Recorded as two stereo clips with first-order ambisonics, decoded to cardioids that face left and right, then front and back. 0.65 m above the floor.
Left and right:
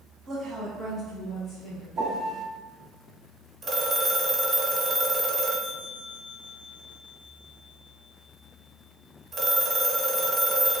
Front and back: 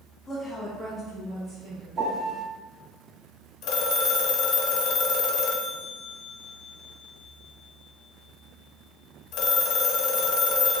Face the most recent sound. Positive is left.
turn(degrees=-20)